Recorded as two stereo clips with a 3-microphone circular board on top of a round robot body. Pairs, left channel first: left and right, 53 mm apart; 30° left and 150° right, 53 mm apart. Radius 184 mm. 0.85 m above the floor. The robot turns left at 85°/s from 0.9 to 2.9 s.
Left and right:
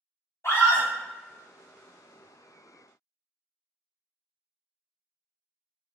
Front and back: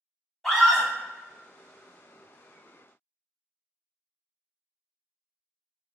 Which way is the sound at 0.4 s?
110° left.